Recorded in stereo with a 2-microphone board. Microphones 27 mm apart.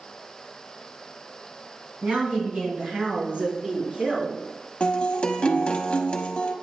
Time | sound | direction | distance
2.0 | a woman speaking | 60° right (ahead or behind) | 3 m
4.8 | a guitar | 45° left (ahead or behind) | 0.9 m